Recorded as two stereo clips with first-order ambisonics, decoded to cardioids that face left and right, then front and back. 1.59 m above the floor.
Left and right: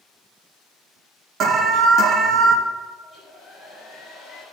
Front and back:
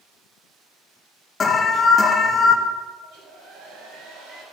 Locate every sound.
1.4 s an alarm: 60° right, 0.9 m
3.0 s a hair dryer: straight behind, 5 m